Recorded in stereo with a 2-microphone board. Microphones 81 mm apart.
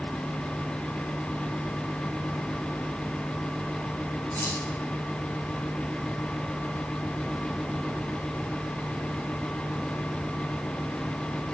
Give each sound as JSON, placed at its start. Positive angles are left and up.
{"t": 4.3, "sound": "keys jangling", "side_deg": 20, "distance_m": 8.0}